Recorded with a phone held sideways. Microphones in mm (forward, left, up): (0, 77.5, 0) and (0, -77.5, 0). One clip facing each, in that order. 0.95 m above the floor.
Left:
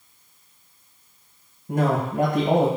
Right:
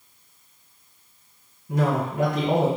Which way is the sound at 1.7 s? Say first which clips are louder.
Left 1 dB; 50° left (ahead or behind).